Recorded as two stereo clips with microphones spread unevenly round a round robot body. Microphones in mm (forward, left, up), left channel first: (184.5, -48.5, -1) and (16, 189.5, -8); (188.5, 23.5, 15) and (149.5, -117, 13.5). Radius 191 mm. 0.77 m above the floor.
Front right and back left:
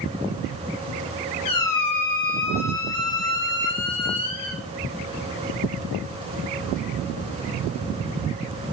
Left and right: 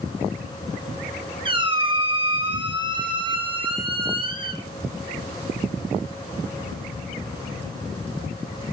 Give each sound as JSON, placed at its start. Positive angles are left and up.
{"t": 1.4, "sound": "a squeak", "azimuth_deg": -50, "distance_m": 2.0}